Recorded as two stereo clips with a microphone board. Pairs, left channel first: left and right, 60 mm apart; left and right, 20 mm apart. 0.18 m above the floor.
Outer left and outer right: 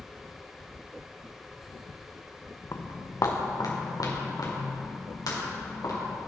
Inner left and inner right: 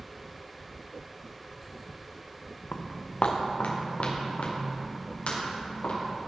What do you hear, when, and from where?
2.7 s footsteps: 50° left (ahead or behind), 1.1 m; by 6.2 s 90° left, 5.5 m